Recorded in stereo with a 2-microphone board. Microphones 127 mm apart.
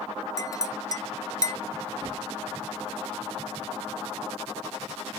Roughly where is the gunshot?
Right.